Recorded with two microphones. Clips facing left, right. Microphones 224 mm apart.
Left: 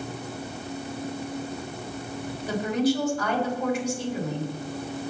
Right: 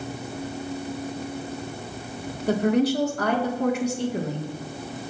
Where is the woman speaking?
65° right (ahead or behind), 3 m.